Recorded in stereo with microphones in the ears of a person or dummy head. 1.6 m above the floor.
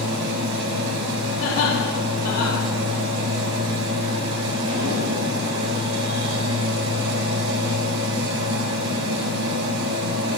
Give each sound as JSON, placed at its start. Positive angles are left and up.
{"t": 0.0, "sound": "a machine running", "side_deg": -70, "distance_m": 4.5}
{"t": 1.4, "sound": "laughter", "side_deg": 65, "distance_m": 4.0}